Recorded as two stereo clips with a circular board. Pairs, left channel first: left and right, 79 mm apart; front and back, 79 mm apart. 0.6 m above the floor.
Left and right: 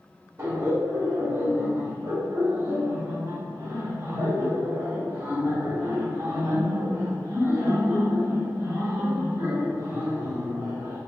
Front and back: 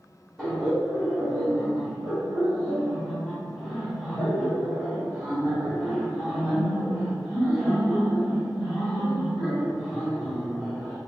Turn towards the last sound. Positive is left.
turn(degrees=-90)